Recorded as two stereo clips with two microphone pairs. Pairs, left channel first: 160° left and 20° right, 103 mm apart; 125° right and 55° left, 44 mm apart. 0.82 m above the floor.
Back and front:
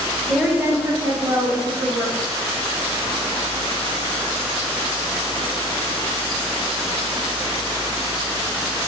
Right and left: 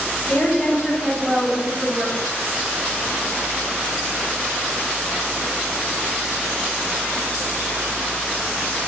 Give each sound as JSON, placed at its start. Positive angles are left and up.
{"t": 0.3, "sound": "a woman speaking", "azimuth_deg": -115, "distance_m": 0.6}